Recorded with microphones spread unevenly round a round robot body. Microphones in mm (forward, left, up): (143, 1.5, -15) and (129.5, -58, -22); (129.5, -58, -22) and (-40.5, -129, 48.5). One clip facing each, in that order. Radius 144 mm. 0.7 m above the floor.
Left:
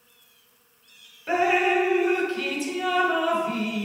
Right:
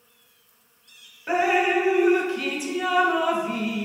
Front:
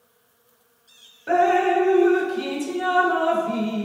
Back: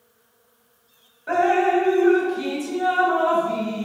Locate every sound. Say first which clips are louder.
1.3 s dripping: even, even; 30° right, 1.1 m